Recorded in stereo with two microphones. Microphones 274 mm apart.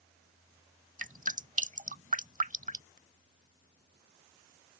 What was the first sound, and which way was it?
Dripping, 30° right (ahead or behind).